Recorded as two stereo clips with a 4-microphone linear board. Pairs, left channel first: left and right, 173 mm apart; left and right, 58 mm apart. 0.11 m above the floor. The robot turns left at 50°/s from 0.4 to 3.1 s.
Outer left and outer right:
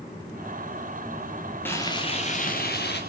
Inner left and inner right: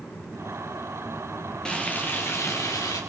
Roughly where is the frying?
Behind.